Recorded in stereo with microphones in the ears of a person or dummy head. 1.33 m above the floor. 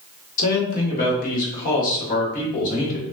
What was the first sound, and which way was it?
A man speaking, 45° left (ahead or behind).